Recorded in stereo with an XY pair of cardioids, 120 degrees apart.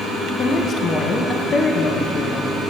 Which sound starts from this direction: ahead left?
A woman speaking, at 0.4 s.